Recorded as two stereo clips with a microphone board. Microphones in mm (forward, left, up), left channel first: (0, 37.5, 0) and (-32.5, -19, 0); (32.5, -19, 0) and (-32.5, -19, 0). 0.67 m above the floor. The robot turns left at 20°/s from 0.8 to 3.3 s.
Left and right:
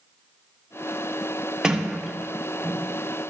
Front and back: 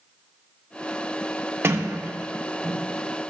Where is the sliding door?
170° left, 1.3 m; by 2.9 s 145° left, 1.3 m.